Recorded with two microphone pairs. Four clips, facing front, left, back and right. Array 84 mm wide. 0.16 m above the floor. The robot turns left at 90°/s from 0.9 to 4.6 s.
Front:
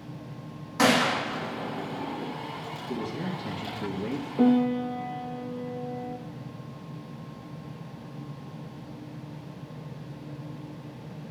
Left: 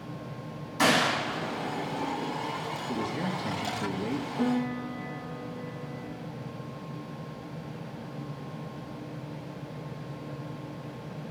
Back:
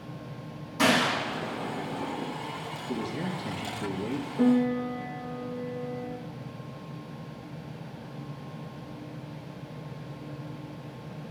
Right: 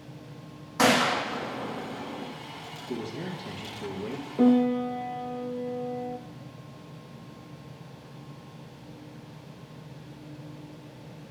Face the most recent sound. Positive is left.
turn(degrees=-55)